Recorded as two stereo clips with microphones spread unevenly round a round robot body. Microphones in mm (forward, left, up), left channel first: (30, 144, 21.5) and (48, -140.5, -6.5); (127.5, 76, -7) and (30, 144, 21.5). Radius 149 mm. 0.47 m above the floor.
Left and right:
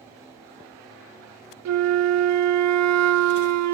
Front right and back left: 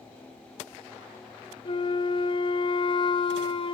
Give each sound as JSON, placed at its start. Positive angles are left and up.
{"t": 1.6, "sound": "a flute", "azimuth_deg": -75, "distance_m": 0.7}